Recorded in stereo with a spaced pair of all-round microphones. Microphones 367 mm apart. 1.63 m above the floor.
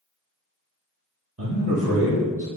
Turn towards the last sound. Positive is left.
turn(degrees=-40)  # may be behind; listen again after turning